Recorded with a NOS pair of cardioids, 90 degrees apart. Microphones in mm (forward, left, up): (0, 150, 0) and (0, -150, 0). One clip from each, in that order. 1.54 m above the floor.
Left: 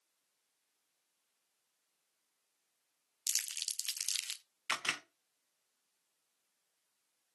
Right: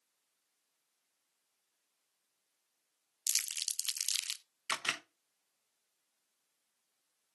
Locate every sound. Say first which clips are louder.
3.3 s crumpling: right 2 dB; 10° right, 0.7 m
4.7 s a camera shutter: even; 5° right, 1.2 m